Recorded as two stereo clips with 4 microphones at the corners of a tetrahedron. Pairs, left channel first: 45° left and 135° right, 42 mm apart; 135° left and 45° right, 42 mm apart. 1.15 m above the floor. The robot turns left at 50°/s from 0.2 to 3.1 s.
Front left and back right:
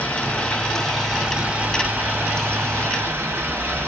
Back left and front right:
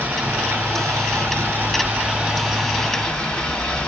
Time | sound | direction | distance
0.0 | running water | 10° right | 1.4 m